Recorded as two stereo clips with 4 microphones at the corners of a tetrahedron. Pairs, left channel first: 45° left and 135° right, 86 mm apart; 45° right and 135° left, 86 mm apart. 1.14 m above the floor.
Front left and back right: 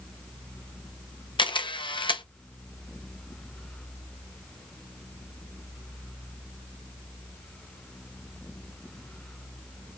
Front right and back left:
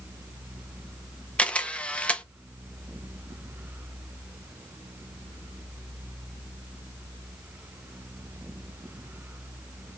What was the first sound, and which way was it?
A camera shutter, 30° left.